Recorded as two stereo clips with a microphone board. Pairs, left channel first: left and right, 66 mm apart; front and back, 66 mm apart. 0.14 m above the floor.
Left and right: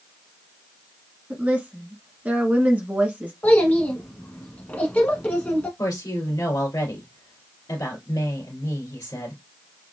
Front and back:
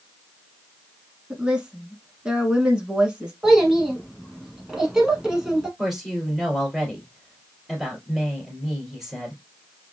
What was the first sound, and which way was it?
A woman speaking, 120° right.